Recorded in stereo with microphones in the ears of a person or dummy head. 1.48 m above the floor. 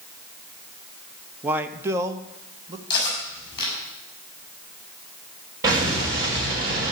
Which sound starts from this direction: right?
An explosion, at 5.6 s.